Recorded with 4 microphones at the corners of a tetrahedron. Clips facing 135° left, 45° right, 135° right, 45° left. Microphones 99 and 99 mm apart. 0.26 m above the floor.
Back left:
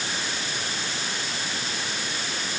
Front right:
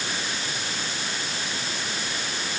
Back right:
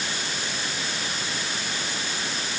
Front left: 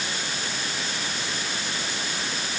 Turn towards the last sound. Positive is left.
No sound to turn to.